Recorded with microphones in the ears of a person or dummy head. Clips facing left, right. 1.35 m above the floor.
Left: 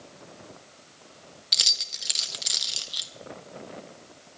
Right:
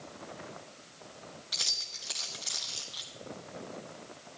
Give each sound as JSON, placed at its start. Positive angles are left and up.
{"t": 1.5, "sound": "keys jangling", "side_deg": 30, "distance_m": 0.9}